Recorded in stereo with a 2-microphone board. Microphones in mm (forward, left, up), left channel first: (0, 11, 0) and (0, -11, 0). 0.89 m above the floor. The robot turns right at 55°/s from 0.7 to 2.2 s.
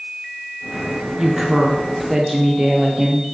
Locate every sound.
1.2 s a woman speaking: 20° right (ahead or behind), 0.7 m; by 3.2 s 15° right (ahead or behind), 0.7 m